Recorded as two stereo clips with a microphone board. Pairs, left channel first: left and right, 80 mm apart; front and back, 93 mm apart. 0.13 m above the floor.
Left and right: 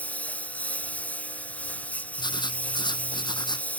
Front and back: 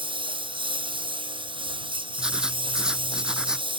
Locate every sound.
0.0 s a lawn mower: 165° left
2.2 s writing: 100° left